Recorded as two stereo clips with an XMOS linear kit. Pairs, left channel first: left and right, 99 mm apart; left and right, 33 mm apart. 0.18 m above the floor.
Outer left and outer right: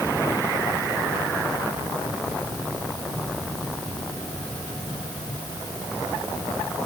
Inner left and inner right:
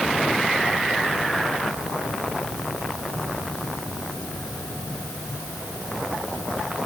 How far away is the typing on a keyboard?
No typing on a keyboard in this recording.